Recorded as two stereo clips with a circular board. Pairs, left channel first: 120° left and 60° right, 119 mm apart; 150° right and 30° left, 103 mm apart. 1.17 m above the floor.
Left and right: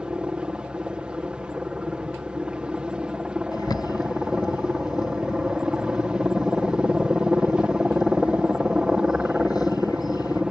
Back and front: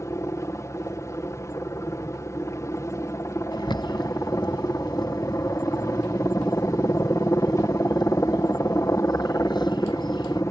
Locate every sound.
0.0 s a helicopter: 135° right
3.5 s a bird: 175° left